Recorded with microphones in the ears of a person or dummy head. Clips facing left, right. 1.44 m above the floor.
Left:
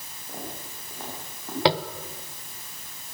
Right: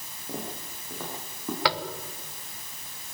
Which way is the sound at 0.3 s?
80° right.